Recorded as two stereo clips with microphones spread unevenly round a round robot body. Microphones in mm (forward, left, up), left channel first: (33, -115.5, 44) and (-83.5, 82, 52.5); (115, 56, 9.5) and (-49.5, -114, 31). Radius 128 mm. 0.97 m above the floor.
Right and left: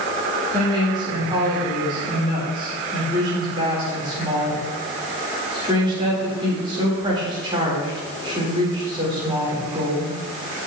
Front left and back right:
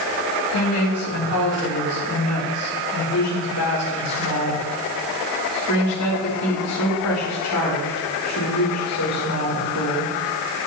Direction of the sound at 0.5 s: 50° left.